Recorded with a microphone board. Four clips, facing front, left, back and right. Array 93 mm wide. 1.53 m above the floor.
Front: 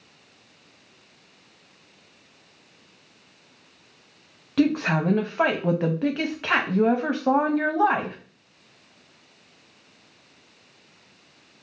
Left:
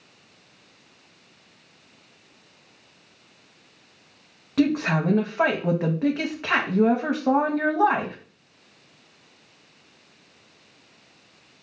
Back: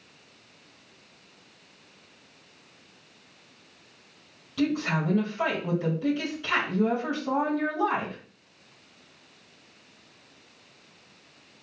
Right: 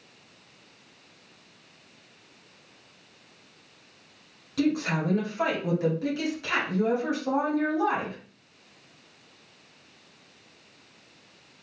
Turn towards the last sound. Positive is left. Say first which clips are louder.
# left 4 dB, front 5 dB
turn(degrees=35)